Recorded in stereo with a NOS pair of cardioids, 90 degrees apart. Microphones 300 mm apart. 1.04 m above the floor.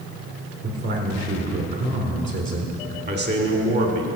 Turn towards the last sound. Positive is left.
turn(degrees=-35)